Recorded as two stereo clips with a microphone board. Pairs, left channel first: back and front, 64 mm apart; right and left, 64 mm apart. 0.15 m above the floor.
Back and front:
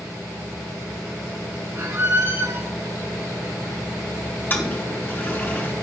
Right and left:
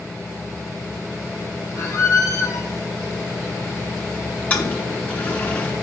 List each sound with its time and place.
1.8 s a squeak: 50° right, 1.7 m
4.5 s a toilet flushing: 140° right, 1.5 m